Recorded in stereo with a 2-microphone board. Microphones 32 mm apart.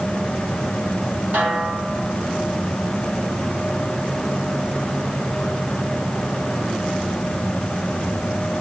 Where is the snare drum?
60° right (ahead or behind), 5.5 m.